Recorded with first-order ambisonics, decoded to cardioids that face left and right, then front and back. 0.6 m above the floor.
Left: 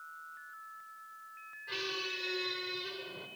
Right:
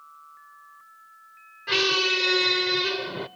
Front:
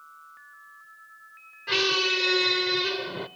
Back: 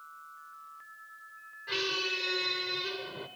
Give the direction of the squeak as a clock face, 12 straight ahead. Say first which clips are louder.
Right 16 dB, front 8 dB; 2 o'clock.